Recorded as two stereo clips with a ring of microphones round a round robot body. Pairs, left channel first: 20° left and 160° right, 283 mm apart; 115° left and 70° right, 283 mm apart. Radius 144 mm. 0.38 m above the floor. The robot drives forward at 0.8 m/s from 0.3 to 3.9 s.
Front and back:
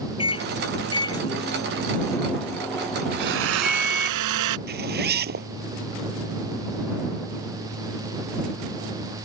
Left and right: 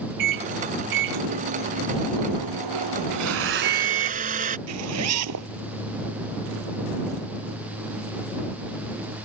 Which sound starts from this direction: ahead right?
A microwave, at 0.2 s.